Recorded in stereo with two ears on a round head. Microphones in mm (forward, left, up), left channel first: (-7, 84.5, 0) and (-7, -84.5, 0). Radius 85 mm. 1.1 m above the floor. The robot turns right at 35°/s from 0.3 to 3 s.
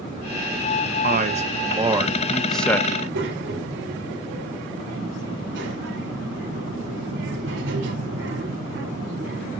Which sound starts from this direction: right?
A child speaking, at 2.9 s.